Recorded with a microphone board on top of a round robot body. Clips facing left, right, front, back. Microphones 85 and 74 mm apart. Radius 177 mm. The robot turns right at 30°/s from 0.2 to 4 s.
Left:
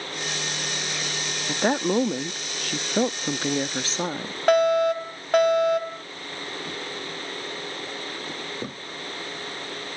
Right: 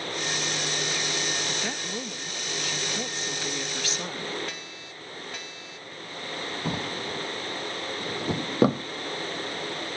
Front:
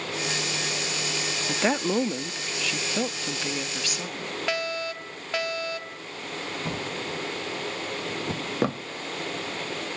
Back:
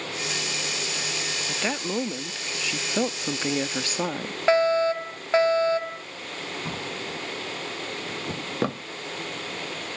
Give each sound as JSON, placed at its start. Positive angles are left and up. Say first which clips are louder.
{"t": 1.5, "sound": "a woman speaking", "louder": "left 10 dB, front 5 dB", "azimuth_deg": 60}
{"t": 4.5, "sound": "a fire alarm", "louder": "left 24 dB, back 12 dB", "azimuth_deg": 120}
{"t": 6.7, "sound": "a drawer", "louder": "right 3 dB, front 2 dB", "azimuth_deg": -90}